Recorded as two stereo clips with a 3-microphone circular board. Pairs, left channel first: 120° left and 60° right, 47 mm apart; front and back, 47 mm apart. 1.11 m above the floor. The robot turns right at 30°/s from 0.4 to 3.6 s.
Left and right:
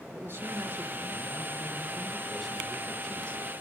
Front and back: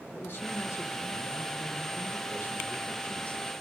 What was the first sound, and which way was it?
A man speaking, 30° right.